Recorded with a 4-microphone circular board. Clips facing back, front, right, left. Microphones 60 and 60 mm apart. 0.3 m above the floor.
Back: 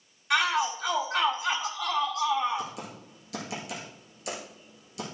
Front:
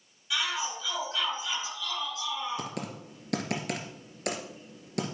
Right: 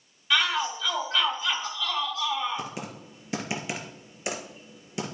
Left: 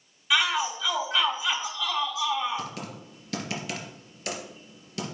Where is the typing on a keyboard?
20° right, 2 m.